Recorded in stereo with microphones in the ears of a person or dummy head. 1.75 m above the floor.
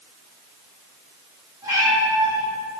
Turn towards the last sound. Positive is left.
turn(degrees=-15)  # may be behind; listen again after turning